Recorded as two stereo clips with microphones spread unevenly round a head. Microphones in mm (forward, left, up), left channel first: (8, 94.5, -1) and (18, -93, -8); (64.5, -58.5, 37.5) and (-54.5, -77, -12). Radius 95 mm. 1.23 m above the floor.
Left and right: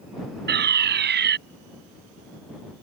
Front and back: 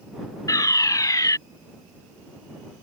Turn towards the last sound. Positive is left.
turn(degrees=-50)